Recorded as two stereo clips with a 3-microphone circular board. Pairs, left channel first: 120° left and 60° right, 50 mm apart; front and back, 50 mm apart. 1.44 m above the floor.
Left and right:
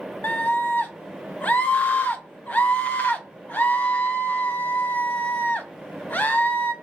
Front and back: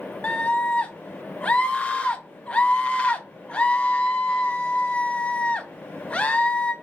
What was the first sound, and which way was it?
A scream, 65° left.